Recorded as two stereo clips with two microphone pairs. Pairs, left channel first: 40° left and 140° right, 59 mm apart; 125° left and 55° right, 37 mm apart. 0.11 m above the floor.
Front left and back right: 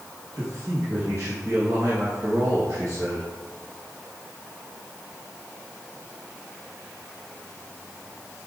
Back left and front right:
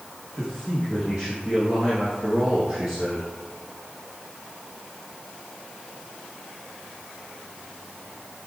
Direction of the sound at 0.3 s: 115° right.